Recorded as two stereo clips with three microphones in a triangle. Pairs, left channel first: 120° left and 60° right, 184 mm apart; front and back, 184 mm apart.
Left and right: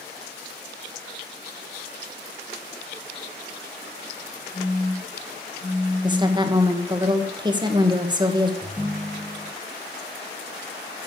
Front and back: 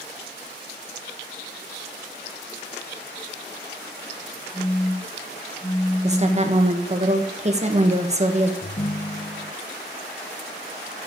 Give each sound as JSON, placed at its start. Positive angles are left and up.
{"t": 4.5, "sound": "a phone buzzing", "azimuth_deg": 100, "distance_m": 7.5}
{"t": 6.0, "sound": "a woman speaking", "azimuth_deg": -130, "distance_m": 1.7}
{"t": 8.6, "sound": "a ringtone", "azimuth_deg": 20, "distance_m": 0.7}